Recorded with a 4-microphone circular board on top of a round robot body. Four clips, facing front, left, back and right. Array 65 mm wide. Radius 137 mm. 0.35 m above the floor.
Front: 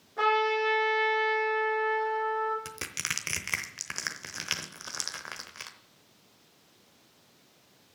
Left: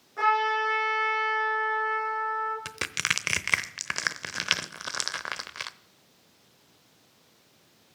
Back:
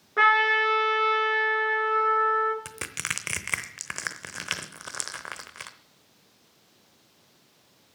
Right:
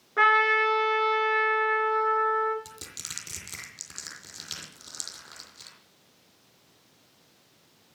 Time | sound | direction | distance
0.2 | a trumpet | 145° right | 3 m
2.6 | crushing | 105° left | 0.9 m